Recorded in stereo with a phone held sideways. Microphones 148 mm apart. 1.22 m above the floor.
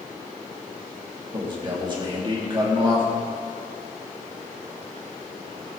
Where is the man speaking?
35° right (ahead or behind), 2.5 m.